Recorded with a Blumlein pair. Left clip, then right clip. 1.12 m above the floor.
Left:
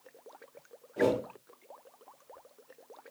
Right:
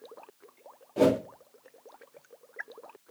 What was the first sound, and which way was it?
A whoosh, 25° right.